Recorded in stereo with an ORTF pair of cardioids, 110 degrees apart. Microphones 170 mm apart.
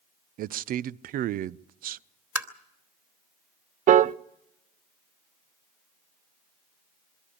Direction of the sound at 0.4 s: 55° right.